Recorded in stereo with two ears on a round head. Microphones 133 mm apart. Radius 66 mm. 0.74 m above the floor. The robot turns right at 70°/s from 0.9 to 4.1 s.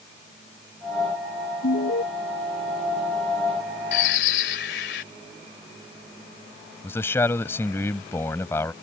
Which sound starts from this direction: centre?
A man speaking, at 6.8 s.